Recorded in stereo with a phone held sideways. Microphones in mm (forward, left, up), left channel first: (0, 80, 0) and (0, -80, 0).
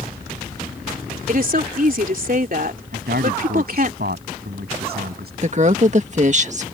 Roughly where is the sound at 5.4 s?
Right.